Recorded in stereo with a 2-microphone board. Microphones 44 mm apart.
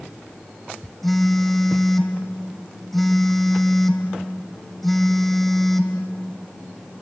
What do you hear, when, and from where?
1.0 s a phone buzzing: 5° left (ahead or behind), 2 m